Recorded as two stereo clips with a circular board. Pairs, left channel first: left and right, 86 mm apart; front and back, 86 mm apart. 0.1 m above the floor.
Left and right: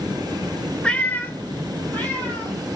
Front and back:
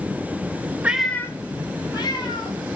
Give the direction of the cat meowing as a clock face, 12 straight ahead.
7 o'clock.